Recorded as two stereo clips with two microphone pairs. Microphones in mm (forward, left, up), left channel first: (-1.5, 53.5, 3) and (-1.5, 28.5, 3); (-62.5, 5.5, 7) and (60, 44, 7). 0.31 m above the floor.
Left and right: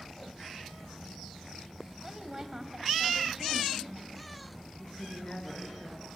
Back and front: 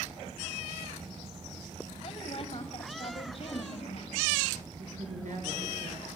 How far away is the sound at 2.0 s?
About 1.9 m.